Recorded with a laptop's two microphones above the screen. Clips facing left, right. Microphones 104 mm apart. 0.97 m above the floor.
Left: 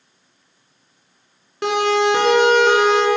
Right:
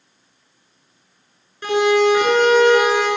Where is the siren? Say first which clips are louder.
Right 2 dB; 85° left, 9 m; by 3.1 s 80° left, 8 m.